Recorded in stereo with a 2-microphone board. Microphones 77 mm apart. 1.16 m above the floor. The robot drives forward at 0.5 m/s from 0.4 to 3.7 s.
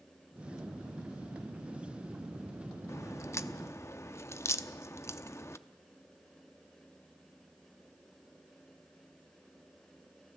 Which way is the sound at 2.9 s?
35° left (ahead or behind).